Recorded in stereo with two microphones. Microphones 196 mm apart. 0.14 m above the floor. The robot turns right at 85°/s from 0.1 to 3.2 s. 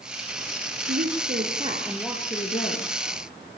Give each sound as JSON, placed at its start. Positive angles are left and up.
{"t": 0.9, "sound": "a woman speaking", "azimuth_deg": -90, "distance_m": 3.5}